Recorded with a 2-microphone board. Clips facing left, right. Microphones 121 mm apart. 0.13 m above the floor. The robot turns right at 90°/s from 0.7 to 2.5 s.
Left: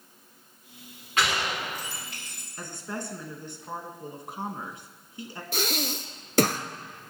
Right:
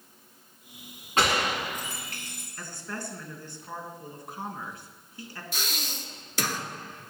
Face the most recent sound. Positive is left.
turn(degrees=55)  # may be behind; listen again after turning